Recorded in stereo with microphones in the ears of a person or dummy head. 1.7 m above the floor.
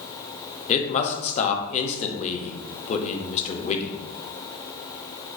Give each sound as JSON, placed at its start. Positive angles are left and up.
{"t": 0.7, "sound": "a man speaking", "side_deg": 35, "distance_m": 0.6}